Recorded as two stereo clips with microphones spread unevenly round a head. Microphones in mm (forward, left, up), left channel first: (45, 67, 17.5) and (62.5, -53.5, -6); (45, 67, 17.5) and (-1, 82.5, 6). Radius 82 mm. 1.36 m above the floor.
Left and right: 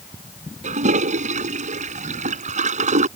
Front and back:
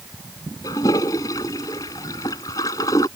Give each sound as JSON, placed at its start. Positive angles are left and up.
{"t": 0.6, "sound": "a toilet flushing", "azimuth_deg": -60}